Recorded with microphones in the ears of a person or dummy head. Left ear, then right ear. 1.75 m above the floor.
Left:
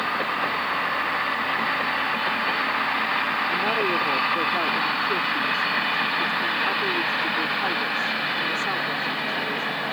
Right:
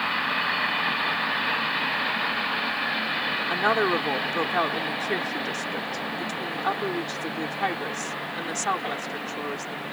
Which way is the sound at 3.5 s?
50° right (ahead or behind).